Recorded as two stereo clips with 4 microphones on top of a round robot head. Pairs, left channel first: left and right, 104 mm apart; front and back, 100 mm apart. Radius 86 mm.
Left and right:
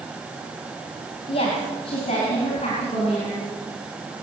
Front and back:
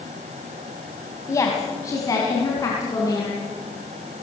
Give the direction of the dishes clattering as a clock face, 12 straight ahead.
I don't hear dishes clattering.